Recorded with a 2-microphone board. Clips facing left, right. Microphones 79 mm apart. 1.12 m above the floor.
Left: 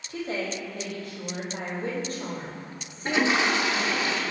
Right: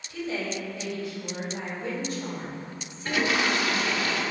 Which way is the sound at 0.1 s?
50° left (ahead or behind).